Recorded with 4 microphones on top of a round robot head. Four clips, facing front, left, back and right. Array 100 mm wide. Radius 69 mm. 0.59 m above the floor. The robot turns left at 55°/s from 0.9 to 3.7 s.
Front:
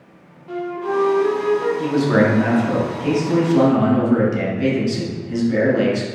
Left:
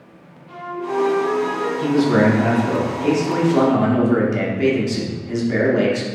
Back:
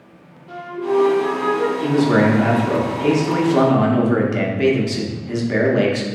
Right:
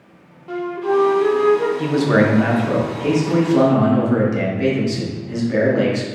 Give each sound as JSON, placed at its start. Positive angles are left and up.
{"t": 0.5, "sound": "a flute", "azimuth_deg": -90, "distance_m": 0.6}
{"t": 1.8, "sound": "a man speaking", "azimuth_deg": -85, "distance_m": 1.1}